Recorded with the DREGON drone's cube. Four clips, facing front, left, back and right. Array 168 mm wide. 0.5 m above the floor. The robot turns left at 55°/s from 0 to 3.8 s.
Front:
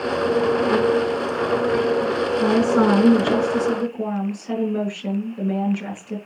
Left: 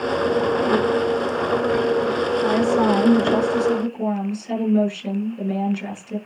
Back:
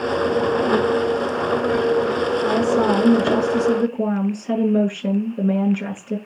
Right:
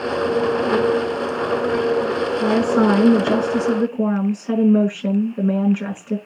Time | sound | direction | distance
2.4 | a woman speaking | 25° right | 7 m